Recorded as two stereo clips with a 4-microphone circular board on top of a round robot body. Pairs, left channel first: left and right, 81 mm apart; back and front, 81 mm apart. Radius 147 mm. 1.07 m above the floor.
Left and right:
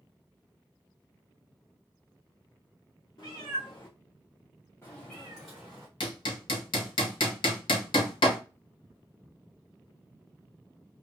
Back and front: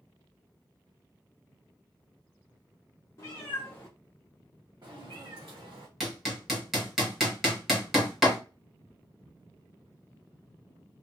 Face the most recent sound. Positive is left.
turn(degrees=85)